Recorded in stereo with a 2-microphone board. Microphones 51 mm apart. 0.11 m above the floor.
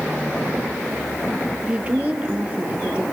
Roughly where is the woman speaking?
Right.